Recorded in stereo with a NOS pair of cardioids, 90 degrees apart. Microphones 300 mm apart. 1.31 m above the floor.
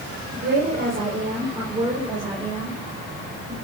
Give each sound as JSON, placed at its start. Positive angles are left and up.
{"t": 0.3, "sound": "a woman speaking", "azimuth_deg": -40, "distance_m": 4.5}